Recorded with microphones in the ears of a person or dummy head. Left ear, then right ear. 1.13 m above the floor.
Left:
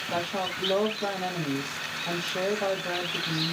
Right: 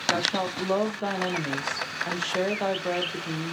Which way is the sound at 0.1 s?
50° right (ahead or behind).